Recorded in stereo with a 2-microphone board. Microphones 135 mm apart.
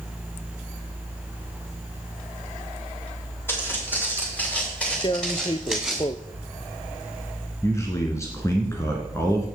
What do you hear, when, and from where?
3.5 s footsteps: 15° left (ahead or behind), 8.5 m; by 6.0 s centre (ahead or behind), 6 m
5.0 s tearing paper: 35° left (ahead or behind), 0.6 m
7.6 s a man speaking: 20° left (ahead or behind), 1.9 m